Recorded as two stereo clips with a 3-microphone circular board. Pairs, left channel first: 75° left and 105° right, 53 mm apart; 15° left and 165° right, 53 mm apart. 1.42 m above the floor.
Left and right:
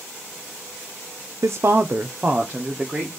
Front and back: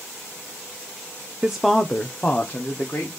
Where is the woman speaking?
95° right, 0.5 m; by 3.2 s 25° right, 1.7 m.